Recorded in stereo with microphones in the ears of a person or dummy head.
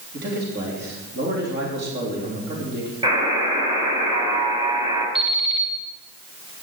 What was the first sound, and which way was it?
A man speaking, 50° right (ahead or behind).